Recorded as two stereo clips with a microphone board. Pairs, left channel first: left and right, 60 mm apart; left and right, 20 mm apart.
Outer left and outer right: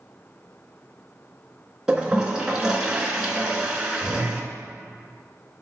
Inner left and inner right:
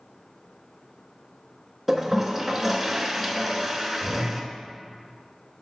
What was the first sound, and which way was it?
A toilet flushing, 10° right (ahead or behind).